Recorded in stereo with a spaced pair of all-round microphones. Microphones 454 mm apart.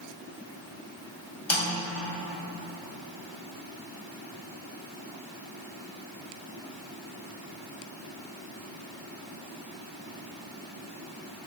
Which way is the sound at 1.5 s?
75° left (ahead or behind).